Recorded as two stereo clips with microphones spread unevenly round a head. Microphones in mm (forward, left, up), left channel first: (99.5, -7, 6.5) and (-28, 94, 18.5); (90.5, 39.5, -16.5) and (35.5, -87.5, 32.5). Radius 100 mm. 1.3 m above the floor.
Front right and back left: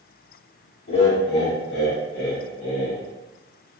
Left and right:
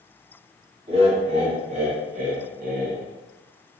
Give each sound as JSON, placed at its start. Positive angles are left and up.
{"t": 0.9, "sound": "laughter", "azimuth_deg": -70, "distance_m": 1.9}